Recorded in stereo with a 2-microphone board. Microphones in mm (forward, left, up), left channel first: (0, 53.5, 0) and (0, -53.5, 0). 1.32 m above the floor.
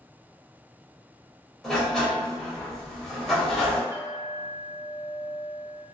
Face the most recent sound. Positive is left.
turn(degrees=-30)  # may be behind; listen again after turning